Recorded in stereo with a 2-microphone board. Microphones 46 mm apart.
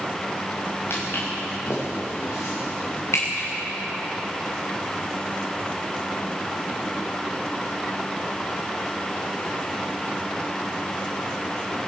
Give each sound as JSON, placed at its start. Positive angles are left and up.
{"t": 0.9, "sound": "footsteps", "side_deg": 55, "distance_m": 7.5}